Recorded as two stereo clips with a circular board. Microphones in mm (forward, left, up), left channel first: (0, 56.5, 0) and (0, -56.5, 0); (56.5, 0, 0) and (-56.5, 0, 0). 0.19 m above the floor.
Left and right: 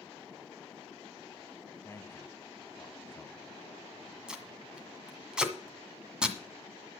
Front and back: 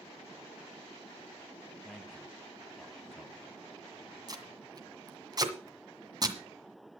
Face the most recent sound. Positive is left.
turn(degrees=-170)